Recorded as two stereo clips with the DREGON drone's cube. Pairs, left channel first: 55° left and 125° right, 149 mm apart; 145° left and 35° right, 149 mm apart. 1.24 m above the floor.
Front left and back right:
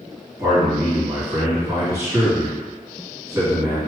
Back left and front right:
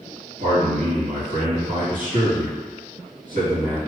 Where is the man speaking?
50° right, 1.9 m.